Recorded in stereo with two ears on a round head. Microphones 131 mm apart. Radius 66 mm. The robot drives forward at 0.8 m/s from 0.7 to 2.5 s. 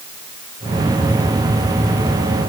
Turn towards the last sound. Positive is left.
No sound to turn to.